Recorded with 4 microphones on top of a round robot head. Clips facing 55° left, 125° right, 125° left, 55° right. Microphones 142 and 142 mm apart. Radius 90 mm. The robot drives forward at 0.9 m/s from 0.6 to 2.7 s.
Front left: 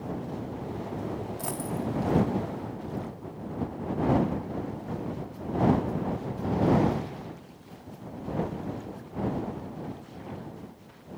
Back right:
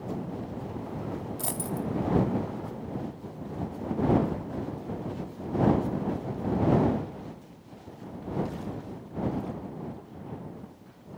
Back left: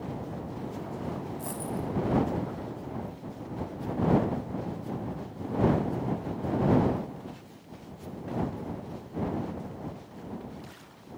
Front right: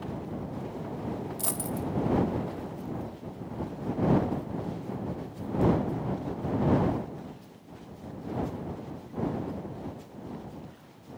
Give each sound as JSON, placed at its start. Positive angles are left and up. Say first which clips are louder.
{"t": 1.4, "sound": "a dropped coin", "louder": "even, front right 1 dB", "azimuth_deg": -65, "distance_m": 3.0}